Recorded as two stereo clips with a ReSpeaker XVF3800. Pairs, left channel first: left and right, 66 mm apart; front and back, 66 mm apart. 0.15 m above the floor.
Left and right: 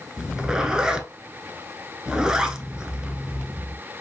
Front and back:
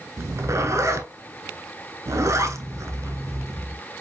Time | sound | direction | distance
0.2 | a zipper | 165° right | 0.7 m